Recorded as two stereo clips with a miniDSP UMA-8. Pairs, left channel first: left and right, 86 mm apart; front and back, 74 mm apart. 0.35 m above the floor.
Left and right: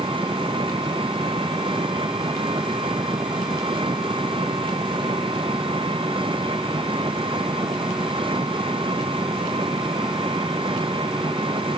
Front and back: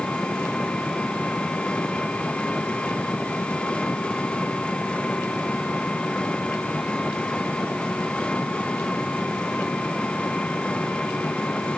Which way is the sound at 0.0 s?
80° right.